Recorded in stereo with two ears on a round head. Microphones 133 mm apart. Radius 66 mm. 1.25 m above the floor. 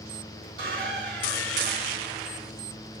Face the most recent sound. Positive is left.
turn(degrees=-65)  # may be behind; listen again after turning